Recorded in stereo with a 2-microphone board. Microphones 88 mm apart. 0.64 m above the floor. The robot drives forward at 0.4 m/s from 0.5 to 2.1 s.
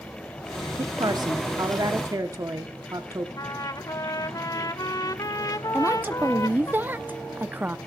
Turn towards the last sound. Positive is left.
turn(degrees=-20)  # may be behind; listen again after turning